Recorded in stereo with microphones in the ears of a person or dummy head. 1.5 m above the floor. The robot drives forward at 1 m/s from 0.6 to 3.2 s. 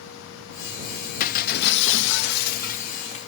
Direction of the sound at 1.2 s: 45° left (ahead or behind).